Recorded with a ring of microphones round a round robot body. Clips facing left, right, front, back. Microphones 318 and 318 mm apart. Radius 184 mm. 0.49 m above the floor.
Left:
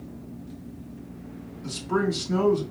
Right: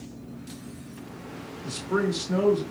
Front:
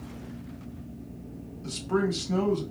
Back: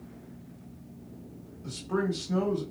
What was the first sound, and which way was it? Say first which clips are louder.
A man speaking: left 1 dB, front 3 dB; 10° left.